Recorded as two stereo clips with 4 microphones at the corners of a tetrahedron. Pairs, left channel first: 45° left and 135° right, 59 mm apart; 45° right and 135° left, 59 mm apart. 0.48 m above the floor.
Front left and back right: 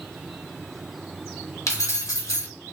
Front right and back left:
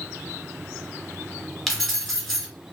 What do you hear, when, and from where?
1.7 s keys jangling: 40° left, 1.1 m